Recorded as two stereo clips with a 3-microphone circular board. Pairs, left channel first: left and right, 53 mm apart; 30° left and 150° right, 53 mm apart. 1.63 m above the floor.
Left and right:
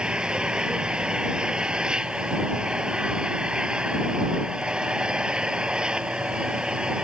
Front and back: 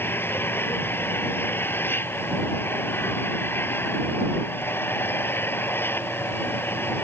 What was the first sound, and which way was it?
An engine running, 15° right.